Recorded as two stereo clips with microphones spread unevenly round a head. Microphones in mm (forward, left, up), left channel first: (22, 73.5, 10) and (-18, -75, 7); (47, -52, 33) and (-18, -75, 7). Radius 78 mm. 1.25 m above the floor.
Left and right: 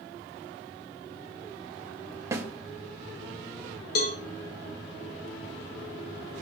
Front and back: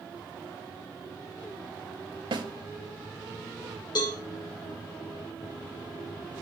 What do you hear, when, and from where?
2.3 s a snare drum: 175° right, 1.5 m
4.0 s a cowbell: 55° left, 1.7 m